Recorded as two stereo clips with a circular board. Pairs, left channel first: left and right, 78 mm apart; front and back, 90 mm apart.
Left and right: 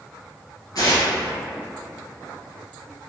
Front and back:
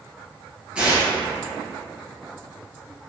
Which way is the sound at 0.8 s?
105° left.